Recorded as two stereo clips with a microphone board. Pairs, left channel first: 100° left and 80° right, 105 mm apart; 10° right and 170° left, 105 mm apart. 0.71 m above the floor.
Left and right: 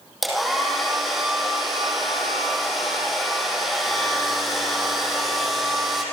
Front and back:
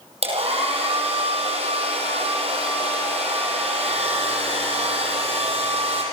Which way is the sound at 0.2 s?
170° right.